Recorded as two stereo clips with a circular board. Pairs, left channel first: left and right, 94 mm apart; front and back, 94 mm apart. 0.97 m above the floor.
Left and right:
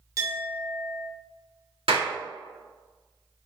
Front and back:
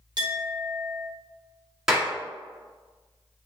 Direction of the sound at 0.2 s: 140° right.